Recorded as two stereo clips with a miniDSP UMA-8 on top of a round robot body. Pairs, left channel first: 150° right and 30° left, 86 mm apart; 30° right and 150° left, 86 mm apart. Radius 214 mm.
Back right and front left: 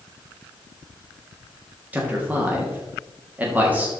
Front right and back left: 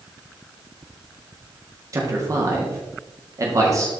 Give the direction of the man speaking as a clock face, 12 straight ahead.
9 o'clock.